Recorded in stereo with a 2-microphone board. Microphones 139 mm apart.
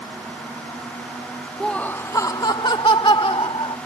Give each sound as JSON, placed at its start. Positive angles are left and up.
{"t": 1.6, "sound": "laughter", "side_deg": 0}